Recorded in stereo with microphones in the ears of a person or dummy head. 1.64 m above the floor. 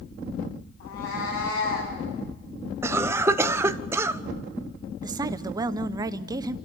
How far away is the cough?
About 0.5 m.